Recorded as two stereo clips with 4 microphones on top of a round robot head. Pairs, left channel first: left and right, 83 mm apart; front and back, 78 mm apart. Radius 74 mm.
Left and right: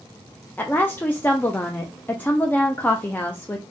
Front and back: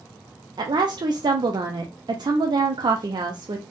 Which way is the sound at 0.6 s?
160° left.